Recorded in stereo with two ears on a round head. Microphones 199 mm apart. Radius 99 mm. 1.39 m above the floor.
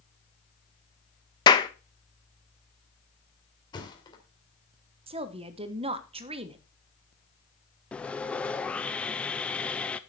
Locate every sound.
1.5 s a clap: 20° left (ahead or behind), 0.8 m
3.7 s a thud: 20° left (ahead or behind), 2.5 m
5.1 s a woman speaking: 25° right (ahead or behind), 1.1 m
7.9 s sawing: 5° left (ahead or behind), 0.6 m